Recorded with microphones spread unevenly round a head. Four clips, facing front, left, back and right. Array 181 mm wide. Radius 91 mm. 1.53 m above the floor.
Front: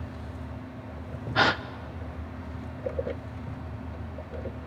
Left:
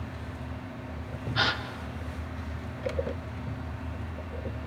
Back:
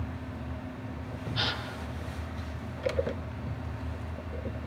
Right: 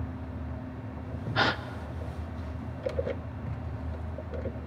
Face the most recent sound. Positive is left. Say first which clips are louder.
# right 2 dB, front 12 dB
turn(degrees=-15)